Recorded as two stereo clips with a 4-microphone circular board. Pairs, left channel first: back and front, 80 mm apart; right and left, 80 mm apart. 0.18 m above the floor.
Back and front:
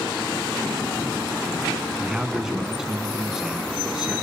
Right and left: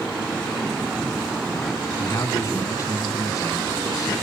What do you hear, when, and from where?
2.0 s a man speaking: 80° right, 1.7 m